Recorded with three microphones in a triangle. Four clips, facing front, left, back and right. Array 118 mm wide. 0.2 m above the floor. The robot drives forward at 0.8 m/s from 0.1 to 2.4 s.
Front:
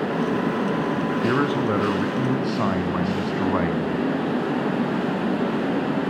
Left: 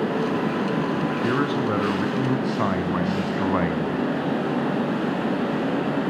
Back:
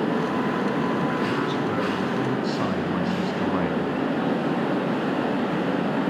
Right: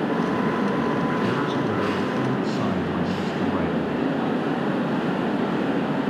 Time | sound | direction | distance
1.2 | a man speaking | 30° left | 2 m